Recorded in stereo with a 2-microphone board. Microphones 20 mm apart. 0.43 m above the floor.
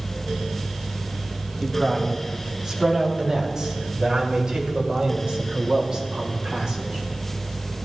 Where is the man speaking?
25° right (ahead or behind), 2.5 m; by 7.8 s 40° right (ahead or behind), 2 m.